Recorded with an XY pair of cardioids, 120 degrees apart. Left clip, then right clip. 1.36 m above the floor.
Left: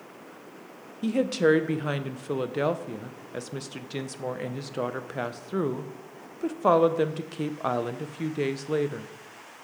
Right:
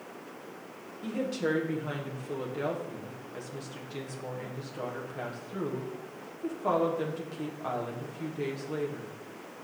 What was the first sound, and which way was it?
A woman speaking, 55° left.